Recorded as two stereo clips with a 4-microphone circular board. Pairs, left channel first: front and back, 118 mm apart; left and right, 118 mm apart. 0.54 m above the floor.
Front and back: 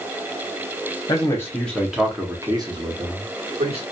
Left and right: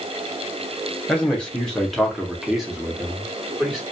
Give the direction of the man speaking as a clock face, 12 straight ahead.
11 o'clock.